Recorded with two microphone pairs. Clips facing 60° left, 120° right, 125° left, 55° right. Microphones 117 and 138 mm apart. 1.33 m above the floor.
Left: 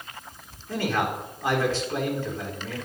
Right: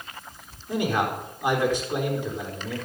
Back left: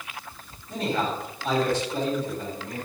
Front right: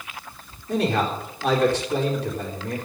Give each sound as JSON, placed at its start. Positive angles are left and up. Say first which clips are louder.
{"t": 0.7, "sound": "a man speaking", "louder": "right 1 dB, front right 4 dB", "azimuth_deg": -45, "distance_m": 4.0}